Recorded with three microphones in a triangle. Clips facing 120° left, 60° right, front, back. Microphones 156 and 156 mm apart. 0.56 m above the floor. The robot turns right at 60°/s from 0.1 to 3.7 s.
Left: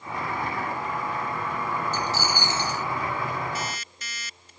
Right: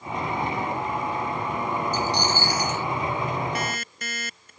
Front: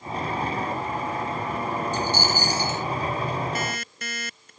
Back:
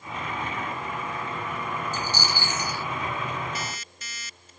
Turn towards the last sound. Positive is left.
turn(degrees=-25)